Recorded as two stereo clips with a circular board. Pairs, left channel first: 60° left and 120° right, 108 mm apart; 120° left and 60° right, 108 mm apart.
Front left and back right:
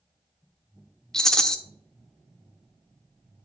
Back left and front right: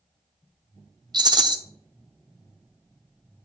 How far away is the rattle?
About 0.7 m.